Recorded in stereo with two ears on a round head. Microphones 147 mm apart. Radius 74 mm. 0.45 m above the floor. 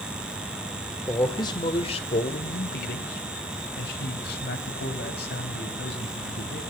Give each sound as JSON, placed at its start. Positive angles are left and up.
{"t": 1.1, "sound": "a man speaking", "side_deg": 15, "distance_m": 1.6}